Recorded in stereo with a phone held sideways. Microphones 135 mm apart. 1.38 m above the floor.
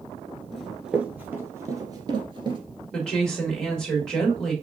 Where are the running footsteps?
Centre (ahead or behind), 1.5 m; by 2.6 s 40° right (ahead or behind), 1.7 m.